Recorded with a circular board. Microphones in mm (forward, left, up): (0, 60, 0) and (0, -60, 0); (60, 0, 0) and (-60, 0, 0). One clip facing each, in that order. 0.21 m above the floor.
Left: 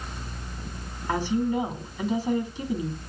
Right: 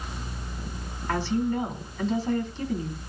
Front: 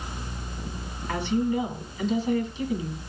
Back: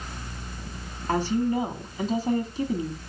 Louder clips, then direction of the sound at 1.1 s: Left 1 dB, back 1 dB; 160° left.